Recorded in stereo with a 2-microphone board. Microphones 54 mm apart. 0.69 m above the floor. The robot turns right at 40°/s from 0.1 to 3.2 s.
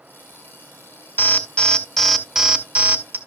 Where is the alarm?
145° left, 2 m; by 3.2 s 135° right, 2 m.